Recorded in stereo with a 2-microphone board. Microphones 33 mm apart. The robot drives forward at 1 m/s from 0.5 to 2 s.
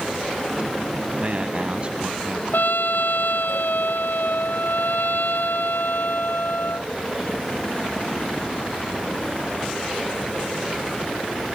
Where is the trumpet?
80° left.